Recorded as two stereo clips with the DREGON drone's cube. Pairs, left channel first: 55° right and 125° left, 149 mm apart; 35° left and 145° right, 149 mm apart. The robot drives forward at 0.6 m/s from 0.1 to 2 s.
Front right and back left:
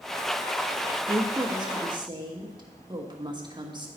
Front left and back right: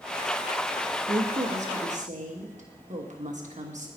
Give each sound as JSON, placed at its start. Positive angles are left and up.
{"t": 0.9, "sound": "a woman speaking", "azimuth_deg": -175, "distance_m": 0.6}